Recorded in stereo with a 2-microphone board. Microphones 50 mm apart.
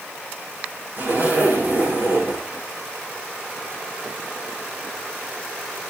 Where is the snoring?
No snoring in this recording.